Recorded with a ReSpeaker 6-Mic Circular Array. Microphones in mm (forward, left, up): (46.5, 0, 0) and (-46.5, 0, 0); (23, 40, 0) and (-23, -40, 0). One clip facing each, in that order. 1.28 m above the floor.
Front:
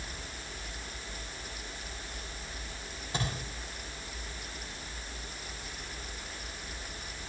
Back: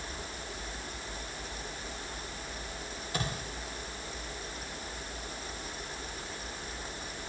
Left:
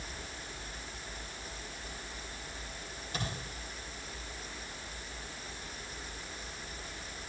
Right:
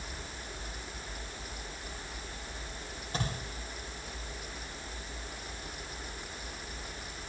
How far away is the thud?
About 8.5 m.